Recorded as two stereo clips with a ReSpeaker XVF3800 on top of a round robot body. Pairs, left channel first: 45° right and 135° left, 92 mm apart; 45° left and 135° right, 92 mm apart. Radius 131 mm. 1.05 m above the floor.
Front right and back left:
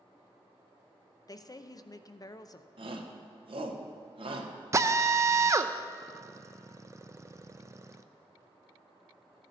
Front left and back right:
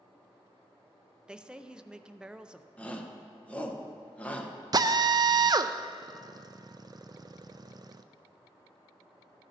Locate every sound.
1.3 s a woman speaking: 60° right, 0.6 m
2.8 s a shout: 120° left, 1.3 m
4.7 s a drill: 170° right, 0.5 m